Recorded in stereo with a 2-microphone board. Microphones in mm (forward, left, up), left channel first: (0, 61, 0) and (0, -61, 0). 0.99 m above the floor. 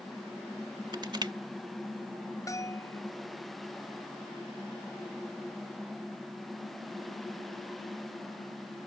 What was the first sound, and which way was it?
Crushing, 40° right (ahead or behind).